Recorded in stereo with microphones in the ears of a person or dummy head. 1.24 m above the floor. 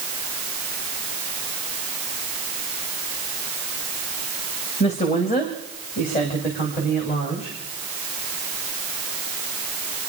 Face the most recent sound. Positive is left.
turn(degrees=45)  # may be behind; listen again after turning